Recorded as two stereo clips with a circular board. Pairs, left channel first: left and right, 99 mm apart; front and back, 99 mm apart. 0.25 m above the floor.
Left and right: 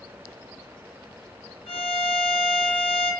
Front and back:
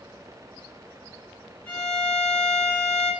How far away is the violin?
About 1.4 m.